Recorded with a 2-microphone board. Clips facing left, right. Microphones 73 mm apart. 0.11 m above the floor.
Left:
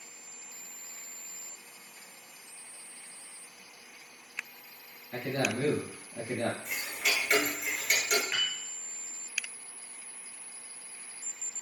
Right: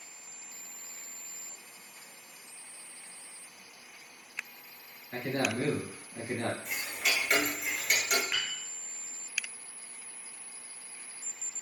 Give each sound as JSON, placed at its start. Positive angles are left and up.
{"t": 5.1, "sound": "a man speaking", "side_deg": -30, "distance_m": 1.4}
{"t": 6.7, "sound": "ticking", "side_deg": 0, "distance_m": 0.9}
{"t": 8.3, "sound": "a piano", "side_deg": 55, "distance_m": 1.5}